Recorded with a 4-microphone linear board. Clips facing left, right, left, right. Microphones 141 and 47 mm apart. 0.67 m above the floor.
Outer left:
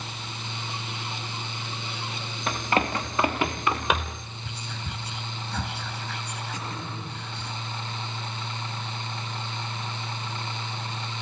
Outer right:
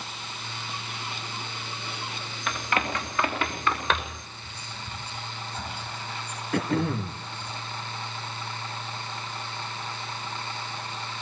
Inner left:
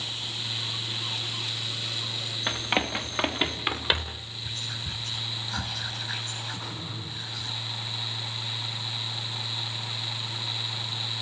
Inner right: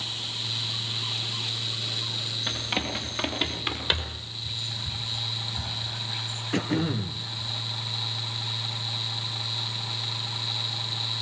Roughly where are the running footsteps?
Left.